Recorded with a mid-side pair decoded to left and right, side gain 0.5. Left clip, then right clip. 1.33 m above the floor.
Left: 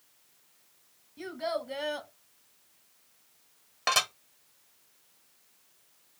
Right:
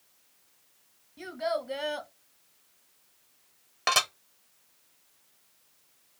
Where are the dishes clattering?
20° right, 0.9 m.